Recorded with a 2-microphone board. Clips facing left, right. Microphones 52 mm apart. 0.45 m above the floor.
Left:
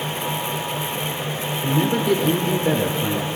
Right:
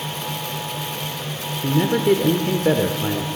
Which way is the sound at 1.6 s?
15° right (ahead or behind).